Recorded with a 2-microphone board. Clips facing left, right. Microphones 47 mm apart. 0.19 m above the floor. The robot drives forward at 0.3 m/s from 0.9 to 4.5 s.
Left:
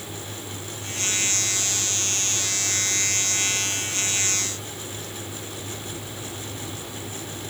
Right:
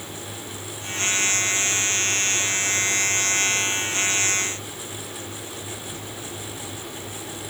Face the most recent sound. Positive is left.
No sound to turn to.